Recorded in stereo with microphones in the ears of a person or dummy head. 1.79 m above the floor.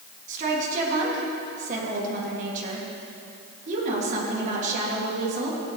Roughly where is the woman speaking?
Right.